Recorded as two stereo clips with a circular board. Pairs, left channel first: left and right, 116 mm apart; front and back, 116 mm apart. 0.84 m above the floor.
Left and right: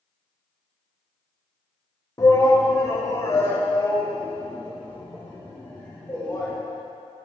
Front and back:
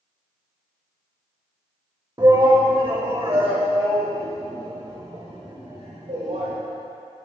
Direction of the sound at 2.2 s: 140° left.